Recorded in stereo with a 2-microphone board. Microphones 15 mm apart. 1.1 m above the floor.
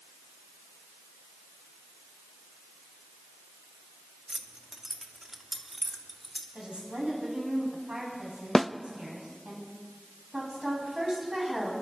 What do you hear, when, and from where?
4.3 s keys jangling: 35° right (ahead or behind), 1.2 m; by 6.5 s centre (ahead or behind), 2.5 m
6.5 s a woman speaking: 80° right, 9.5 m
8.6 s a snare drum: 30° left (ahead or behind), 0.6 m
10.3 s a woman speaking: 40° right (ahead or behind), 9 m